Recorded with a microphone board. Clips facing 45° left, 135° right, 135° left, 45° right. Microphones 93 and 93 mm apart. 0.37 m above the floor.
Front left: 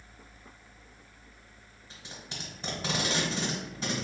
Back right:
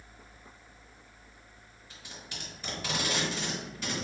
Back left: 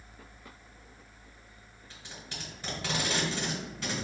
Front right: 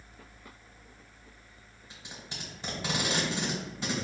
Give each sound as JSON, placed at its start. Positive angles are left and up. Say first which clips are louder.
{"t": 1.9, "sound": "tape being pulled", "louder": "front left 2 dB, even", "azimuth_deg": 5, "distance_m": 1.2}